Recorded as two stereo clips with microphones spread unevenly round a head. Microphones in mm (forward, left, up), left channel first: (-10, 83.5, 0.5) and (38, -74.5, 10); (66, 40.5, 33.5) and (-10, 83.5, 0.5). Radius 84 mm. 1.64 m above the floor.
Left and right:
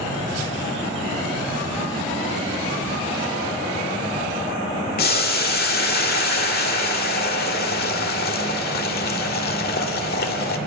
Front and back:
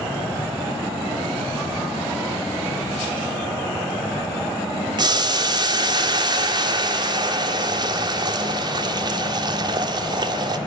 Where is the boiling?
105° left, 1.7 m.